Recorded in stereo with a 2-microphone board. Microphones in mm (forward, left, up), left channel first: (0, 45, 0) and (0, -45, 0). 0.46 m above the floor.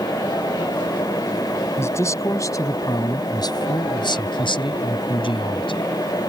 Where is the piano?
I don't hear a piano.